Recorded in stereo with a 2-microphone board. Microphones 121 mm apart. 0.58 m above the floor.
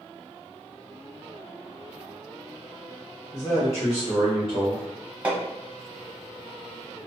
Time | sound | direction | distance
3.3 | a man speaking | 65° left (ahead or behind) | 1.6 m
5.2 | hammering | 10° right (ahead or behind) | 0.9 m